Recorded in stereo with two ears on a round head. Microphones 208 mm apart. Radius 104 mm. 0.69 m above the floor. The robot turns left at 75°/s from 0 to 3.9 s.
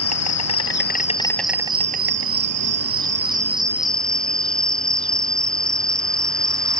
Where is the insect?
110° left; by 6.8 s 175° left.